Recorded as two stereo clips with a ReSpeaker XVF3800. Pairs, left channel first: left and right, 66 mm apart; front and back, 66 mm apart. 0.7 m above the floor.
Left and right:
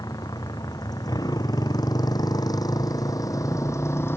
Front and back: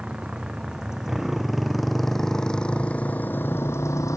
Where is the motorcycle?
105° left; by 4.2 s 35° left.